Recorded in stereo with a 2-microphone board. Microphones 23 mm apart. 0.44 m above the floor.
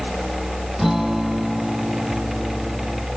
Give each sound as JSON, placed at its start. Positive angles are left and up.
{"t": 0.8, "sound": "a guitar", "side_deg": -15}